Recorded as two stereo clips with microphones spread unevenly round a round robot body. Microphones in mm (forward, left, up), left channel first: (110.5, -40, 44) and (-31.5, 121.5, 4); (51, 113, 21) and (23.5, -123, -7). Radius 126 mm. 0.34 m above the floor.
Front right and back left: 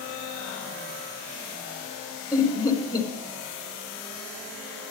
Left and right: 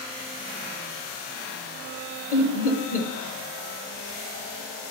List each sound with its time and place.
2.3 s laughter: 35° left, 1.8 m